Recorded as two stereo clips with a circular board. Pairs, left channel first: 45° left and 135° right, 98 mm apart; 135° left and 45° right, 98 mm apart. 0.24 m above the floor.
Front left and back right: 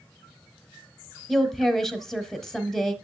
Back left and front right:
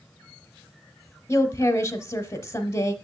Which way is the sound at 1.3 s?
130° left.